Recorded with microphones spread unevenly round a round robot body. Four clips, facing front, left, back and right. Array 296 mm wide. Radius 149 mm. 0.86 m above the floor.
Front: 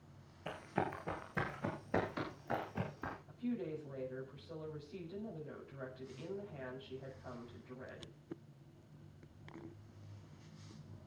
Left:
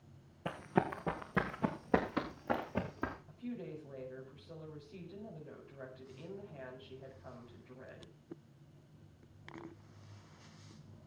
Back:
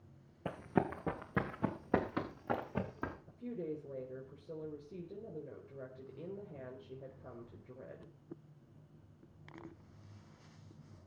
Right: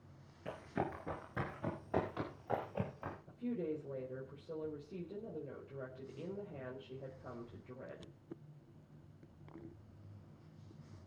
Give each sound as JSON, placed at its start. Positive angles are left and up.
{"t": 0.5, "sound": "running footsteps", "azimuth_deg": 160, "distance_m": 2.5}
{"t": 3.3, "sound": "a woman speaking", "azimuth_deg": -140, "distance_m": 4.5}